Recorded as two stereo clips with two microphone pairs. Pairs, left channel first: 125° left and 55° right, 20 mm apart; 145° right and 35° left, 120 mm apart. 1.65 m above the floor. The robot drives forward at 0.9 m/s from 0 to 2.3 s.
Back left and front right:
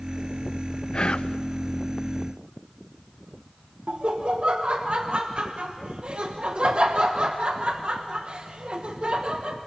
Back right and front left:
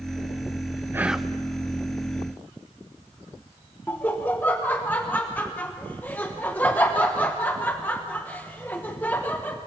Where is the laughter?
70° right, 1.1 m.